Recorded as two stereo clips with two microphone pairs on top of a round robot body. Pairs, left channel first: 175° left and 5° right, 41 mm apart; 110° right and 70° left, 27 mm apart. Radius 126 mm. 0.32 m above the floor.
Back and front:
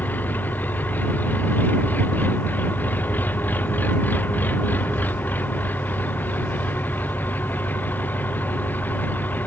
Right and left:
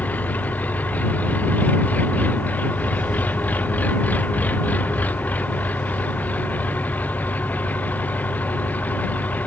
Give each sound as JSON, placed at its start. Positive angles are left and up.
{"t": 0.0, "sound": "an engine running", "azimuth_deg": -140}